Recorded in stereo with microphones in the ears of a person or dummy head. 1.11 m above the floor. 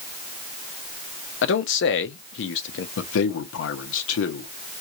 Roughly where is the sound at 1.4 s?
Left.